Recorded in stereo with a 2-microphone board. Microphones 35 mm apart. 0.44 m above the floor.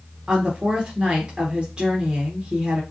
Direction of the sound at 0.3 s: 25° right (ahead or behind).